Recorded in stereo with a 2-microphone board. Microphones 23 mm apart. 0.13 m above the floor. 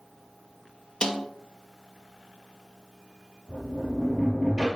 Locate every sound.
1.0 s a snare drum: 40° left (ahead or behind), 0.9 m
3.5 s a sliding door: 40° right (ahead or behind), 2.5 m